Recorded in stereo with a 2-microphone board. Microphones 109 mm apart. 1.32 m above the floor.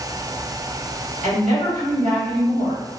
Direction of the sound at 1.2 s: 80° right.